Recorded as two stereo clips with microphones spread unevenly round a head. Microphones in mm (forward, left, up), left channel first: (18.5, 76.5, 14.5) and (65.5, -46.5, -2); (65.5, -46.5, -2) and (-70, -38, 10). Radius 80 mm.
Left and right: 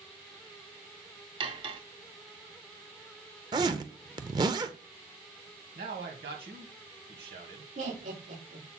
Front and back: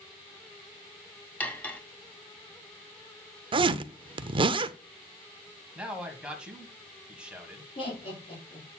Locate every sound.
1.4 s cutlery clinking: 80° right, 0.9 m
3.5 s a zipper: 135° right, 0.5 m
5.8 s a man speaking: 100° right, 2 m
7.8 s laughter: 45° right, 4 m